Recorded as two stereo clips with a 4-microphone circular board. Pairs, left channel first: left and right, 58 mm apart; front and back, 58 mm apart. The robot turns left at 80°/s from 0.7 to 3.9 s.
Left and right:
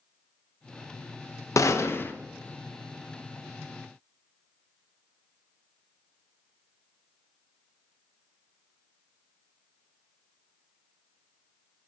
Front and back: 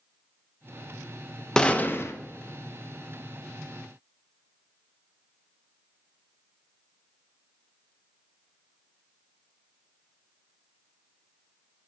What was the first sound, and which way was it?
A gunshot, 75° left.